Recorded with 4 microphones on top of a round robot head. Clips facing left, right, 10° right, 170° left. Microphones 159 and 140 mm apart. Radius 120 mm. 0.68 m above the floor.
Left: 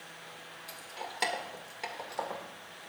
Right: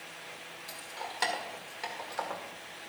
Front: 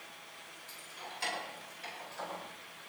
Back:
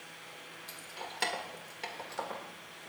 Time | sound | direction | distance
0.7 | keys jangling | 160° left | 1.9 m